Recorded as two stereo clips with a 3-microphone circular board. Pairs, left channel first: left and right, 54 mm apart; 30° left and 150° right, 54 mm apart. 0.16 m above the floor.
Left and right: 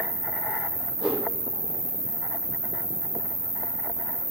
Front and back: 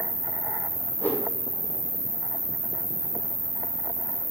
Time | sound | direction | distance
0.0 | an insect | 20° left | 5.5 m
1.0 | a whoosh | 20° right | 5 m